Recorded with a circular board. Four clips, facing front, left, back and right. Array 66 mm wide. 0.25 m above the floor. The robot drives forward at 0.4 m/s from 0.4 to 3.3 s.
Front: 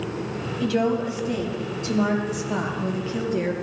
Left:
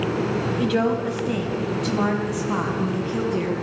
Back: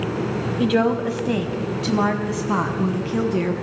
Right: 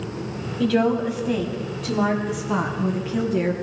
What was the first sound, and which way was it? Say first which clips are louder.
A woman speaking: right 4 dB, back 3 dB; 175° right.